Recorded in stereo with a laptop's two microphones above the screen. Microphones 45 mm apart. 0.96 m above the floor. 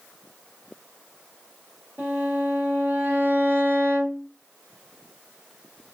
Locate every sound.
2.0 s a violin: 50° right (ahead or behind), 1.4 m